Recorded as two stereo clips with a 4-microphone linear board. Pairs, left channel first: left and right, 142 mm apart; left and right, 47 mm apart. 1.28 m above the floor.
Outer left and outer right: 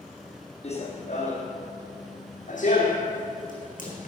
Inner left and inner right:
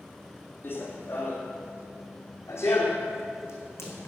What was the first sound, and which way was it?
Running footsteps, 50° left (ahead or behind).